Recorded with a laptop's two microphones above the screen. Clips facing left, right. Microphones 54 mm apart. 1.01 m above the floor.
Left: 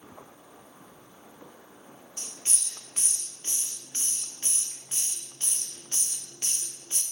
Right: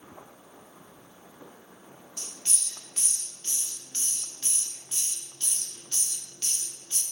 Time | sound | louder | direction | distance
2.2 | a hiss | even | 30° left (ahead or behind) | 0.6 m